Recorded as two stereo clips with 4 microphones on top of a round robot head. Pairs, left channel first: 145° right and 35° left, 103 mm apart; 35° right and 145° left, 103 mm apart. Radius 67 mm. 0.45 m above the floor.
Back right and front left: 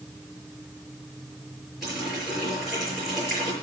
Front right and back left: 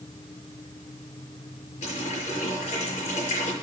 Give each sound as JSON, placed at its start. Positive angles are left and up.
{"t": 1.8, "sound": "a running tap", "azimuth_deg": -55, "distance_m": 7.5}